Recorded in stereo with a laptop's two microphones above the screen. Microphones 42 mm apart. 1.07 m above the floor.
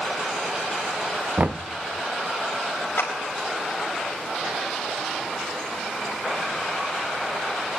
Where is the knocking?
40° right (ahead or behind), 0.5 m.